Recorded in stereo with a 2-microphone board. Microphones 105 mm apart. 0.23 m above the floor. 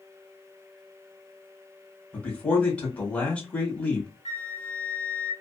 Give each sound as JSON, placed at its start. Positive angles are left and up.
{"t": 2.1, "sound": "a man speaking", "side_deg": 15, "distance_m": 1.3}
{"t": 4.2, "sound": "a flute", "side_deg": 70, "distance_m": 0.8}